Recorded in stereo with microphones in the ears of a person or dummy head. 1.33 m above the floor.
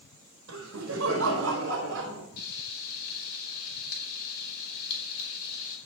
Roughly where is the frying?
Left.